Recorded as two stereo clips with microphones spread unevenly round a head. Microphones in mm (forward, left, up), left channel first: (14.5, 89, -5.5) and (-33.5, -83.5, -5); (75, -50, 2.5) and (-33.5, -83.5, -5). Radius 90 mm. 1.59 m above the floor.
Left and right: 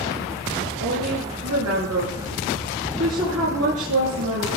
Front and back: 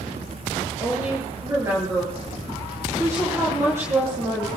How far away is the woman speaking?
About 9 m.